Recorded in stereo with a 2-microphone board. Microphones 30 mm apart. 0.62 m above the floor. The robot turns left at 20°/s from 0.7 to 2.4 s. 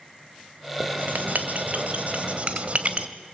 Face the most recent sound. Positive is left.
turn(degrees=-135)